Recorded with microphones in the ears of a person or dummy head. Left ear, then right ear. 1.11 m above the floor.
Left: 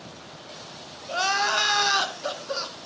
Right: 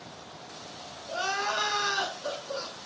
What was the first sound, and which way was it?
Crying, 30° left (ahead or behind).